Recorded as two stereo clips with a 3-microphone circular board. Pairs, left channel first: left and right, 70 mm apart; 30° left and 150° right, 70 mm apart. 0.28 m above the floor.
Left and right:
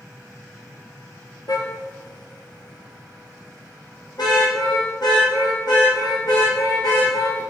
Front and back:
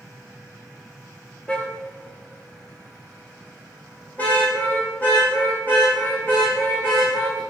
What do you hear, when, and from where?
1.5 s a car horn: 105° left, 3 m; by 7.4 s 90° left, 11.5 m